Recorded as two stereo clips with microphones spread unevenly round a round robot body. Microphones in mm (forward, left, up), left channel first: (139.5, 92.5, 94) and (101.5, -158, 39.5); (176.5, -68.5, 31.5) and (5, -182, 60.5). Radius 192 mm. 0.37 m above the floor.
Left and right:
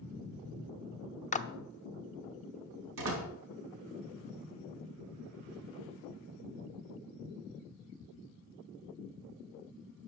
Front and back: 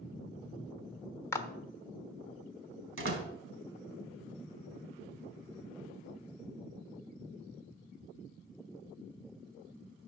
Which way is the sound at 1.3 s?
35° left.